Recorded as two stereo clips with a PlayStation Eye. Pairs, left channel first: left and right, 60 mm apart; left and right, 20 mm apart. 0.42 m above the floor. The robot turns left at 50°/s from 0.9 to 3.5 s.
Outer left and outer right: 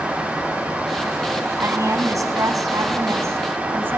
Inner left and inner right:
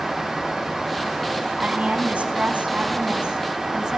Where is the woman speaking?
45° right, 3.5 m; by 4.0 s 140° right, 3.5 m.